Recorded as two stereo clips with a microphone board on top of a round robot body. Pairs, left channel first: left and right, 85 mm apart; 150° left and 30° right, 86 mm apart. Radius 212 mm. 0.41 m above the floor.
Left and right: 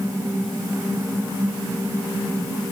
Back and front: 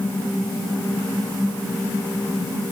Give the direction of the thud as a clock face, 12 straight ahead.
No thud in this recording.